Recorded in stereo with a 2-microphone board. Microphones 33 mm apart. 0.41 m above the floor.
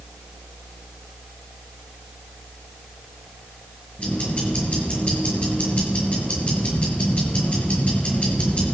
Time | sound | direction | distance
4.0 | ticking | 40° left (ahead or behind) | 5.5 m